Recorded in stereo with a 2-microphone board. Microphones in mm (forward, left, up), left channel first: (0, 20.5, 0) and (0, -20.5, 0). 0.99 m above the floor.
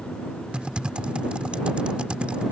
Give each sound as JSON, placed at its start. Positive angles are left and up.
{"t": 0.5, "sound": "typing on a keyboard", "side_deg": -25}